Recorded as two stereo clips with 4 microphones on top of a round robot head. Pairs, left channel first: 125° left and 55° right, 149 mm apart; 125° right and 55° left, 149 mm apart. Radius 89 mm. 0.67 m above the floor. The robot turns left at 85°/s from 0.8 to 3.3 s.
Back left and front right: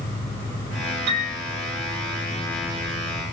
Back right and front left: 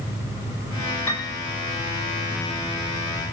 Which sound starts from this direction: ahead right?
A piano, at 1.1 s.